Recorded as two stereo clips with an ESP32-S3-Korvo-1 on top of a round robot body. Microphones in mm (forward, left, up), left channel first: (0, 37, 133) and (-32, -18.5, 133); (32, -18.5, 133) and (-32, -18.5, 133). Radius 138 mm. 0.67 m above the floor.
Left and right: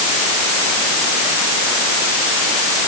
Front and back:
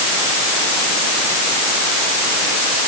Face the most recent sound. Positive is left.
No sound to turn to.